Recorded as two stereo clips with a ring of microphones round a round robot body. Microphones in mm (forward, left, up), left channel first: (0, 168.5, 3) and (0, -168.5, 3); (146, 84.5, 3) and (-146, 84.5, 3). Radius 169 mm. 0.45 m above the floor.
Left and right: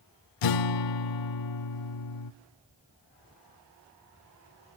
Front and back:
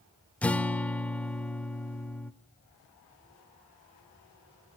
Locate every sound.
0.4 s a guitar: 85° left, 0.7 m